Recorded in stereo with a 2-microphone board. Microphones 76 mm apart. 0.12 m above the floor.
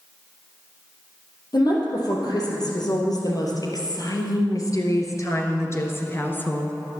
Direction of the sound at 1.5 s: 60° left (ahead or behind).